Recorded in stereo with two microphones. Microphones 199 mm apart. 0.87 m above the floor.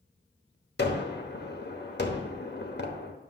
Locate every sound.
0.8 s a gunshot: 60° left (ahead or behind), 1.0 m